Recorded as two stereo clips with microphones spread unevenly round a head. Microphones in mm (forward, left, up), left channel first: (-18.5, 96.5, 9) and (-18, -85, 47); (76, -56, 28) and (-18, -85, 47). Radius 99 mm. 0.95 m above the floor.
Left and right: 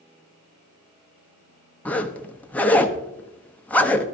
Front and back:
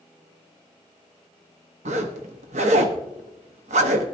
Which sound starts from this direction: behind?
A zipper, at 1.9 s.